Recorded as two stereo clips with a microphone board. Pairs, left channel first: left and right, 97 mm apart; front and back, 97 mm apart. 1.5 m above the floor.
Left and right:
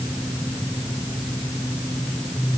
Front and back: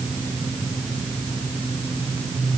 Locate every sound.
Only background noise.